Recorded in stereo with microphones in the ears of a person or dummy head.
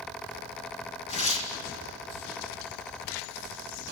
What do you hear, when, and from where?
1.1 s tearing paper: 35° left (ahead or behind), 2 m